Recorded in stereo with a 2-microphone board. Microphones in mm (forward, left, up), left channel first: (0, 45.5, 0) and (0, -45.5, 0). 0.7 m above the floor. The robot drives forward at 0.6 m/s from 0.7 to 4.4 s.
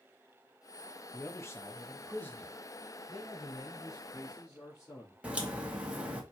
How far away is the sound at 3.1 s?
About 1.7 m.